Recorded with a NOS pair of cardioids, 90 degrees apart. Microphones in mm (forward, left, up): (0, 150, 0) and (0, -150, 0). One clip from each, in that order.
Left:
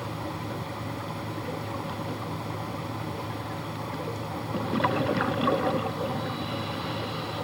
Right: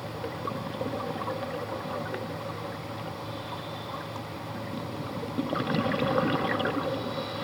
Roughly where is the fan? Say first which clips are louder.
Even; ahead left.